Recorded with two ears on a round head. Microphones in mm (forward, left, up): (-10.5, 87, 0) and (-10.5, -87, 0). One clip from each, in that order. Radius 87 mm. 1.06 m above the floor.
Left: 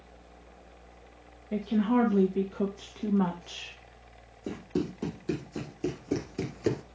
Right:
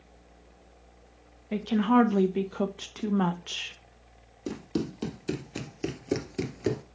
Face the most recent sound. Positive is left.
turn(degrees=5)  # may be behind; listen again after turning